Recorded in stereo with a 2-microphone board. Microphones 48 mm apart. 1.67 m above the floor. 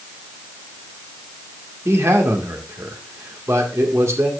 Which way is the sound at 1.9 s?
70° right (ahead or behind).